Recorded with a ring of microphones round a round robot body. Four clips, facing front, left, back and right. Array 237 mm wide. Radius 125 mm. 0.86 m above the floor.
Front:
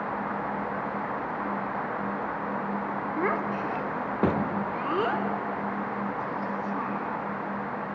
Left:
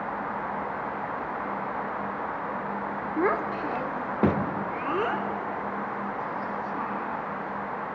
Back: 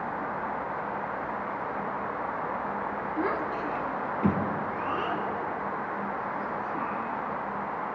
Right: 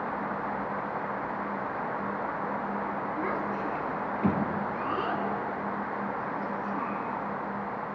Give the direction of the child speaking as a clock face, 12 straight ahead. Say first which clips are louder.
Left 9 dB, front 2 dB; 9 o'clock.